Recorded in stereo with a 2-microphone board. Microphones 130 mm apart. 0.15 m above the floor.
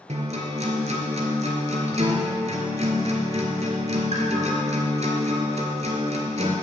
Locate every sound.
0.1 s a guitar: 60° right (ahead or behind), 0.9 m